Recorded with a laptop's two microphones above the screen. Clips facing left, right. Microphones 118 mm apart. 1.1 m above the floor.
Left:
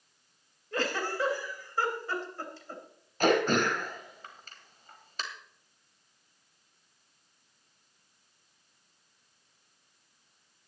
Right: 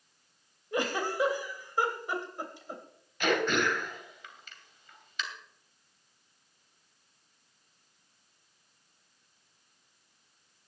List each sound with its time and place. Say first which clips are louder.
0.7 s a giggle: right 1 dB; 15° right (ahead or behind), 3 m
3.2 s throat clearing: left 3 dB; 40° left (ahead or behind), 2.5 m